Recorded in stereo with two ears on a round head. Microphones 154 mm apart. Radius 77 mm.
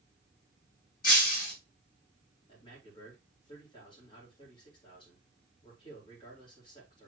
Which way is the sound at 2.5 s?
30° left (ahead or behind).